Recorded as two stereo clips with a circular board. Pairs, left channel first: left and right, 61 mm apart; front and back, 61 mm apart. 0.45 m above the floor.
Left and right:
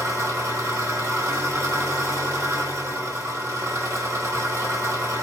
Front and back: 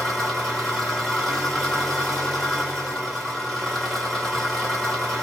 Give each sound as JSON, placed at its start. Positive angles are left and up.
{"t": 0.0, "sound": "an engine running", "azimuth_deg": -80, "distance_m": 1.6}